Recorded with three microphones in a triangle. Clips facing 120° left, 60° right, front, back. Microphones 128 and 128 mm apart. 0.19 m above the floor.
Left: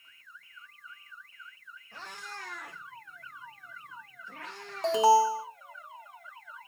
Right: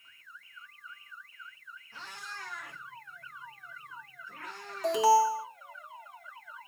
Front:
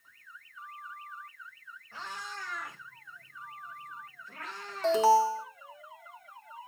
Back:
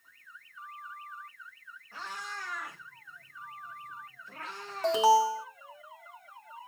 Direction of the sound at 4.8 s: 120° left.